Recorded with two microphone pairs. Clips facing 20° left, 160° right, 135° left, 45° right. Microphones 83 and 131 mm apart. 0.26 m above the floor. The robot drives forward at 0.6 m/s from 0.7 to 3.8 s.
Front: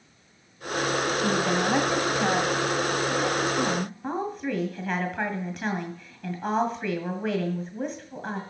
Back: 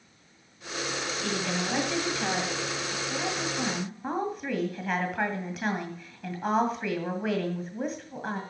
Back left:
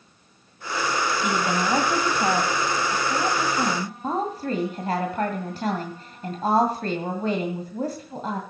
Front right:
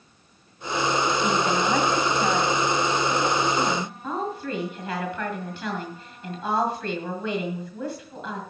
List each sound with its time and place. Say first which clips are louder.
1.2 s a woman speaking: front 5 dB, front right 1 dB; 50° left, 2 m; by 8.4 s 115° left, 1.9 m